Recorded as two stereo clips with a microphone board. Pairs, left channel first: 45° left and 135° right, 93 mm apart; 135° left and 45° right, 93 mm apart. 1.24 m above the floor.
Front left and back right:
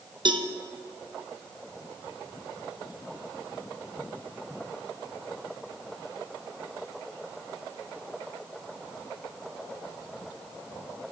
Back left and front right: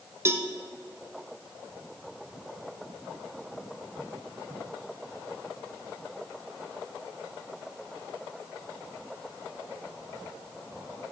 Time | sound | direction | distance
0.2 | a cowbell | 105° right | 0.6 m